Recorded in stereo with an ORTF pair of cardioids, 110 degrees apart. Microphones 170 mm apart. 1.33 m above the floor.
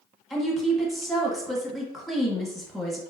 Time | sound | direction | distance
0.3 | a woman speaking | straight ahead | 0.9 m